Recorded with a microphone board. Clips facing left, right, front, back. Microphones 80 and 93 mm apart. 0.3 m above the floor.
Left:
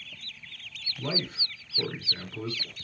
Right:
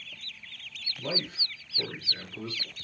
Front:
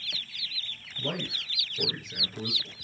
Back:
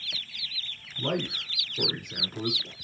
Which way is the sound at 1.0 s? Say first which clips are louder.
Left 1 dB, back 5 dB; 160° left.